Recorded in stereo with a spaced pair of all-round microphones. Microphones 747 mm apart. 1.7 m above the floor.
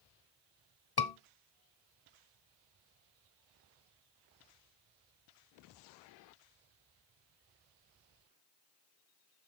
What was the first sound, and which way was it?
A scream, 35° left (ahead or behind).